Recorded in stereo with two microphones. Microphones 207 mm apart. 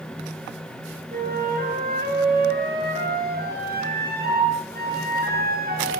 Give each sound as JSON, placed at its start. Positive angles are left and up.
{"t": 1.1, "sound": "a flute", "side_deg": -50, "distance_m": 8.0}